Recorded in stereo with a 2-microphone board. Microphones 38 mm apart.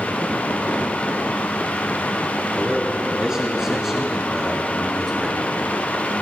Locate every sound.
2.5 s a man speaking: 25° right (ahead or behind), 6.5 m; by 5.4 s 5° right (ahead or behind), 5 m